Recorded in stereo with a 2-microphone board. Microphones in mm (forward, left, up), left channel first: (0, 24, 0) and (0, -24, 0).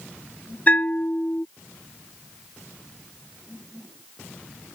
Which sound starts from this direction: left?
A bell, at 0.7 s.